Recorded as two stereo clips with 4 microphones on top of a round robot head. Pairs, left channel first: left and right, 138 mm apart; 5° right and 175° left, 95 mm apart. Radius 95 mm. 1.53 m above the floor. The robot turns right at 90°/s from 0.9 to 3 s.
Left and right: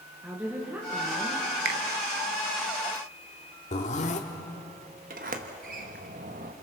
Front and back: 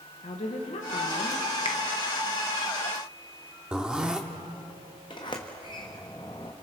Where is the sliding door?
60° right, 1.1 m.